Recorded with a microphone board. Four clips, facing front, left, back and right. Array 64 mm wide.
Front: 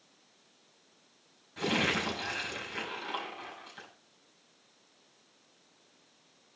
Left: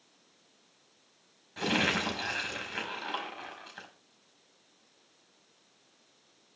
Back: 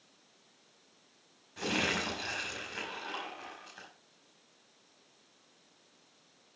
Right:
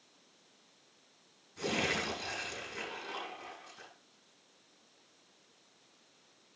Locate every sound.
1.6 s crumpling: 85° left, 5.5 m